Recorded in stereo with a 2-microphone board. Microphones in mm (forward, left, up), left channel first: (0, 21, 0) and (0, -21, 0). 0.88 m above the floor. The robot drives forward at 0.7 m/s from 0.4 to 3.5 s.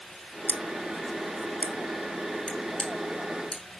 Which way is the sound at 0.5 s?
60° left (ahead or behind).